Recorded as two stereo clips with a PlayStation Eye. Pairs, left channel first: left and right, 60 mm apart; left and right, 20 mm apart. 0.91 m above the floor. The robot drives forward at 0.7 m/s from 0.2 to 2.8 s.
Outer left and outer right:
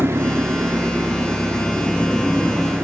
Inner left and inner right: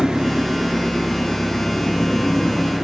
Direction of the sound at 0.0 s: 45° right (ahead or behind).